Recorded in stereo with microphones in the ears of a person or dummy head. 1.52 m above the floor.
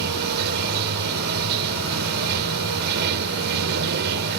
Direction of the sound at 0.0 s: 55° right (ahead or behind).